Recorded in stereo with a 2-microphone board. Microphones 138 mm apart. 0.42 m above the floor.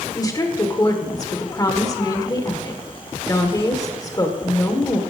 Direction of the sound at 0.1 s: 25° left (ahead or behind).